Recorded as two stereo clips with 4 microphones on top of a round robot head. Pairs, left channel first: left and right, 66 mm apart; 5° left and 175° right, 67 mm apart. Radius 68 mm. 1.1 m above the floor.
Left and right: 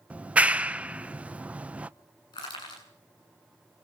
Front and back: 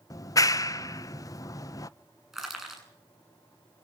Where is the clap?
20° right, 0.7 m.